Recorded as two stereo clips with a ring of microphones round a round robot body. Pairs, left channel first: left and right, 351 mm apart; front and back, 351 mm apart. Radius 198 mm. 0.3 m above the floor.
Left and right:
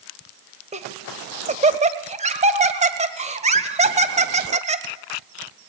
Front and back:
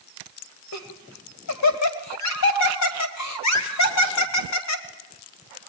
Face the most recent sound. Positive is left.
turn(degrees=-25)